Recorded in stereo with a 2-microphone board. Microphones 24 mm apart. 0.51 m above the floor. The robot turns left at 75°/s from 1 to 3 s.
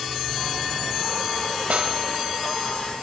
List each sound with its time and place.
1.7 s a snare drum: 60° right (ahead or behind), 1.0 m; by 2.0 s 40° right (ahead or behind), 1.0 m